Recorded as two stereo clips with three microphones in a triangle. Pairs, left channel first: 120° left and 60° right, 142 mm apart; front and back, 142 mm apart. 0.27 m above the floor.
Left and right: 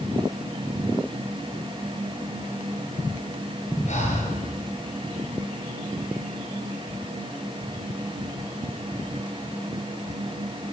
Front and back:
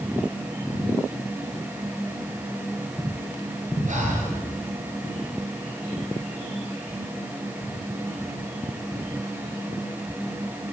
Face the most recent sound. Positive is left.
turn(degrees=155)